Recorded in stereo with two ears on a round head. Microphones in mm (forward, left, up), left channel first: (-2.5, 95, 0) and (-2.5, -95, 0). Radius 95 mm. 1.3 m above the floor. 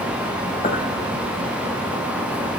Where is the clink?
40° left (ahead or behind), 5.5 m.